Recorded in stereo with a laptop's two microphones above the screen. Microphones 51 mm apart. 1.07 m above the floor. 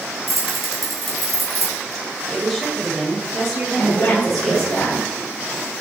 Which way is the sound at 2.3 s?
5° left (ahead or behind).